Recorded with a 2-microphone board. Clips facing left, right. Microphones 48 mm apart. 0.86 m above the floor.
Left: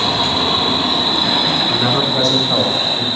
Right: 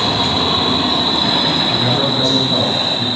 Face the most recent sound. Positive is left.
turn(degrees=75)  # may be behind; listen again after turning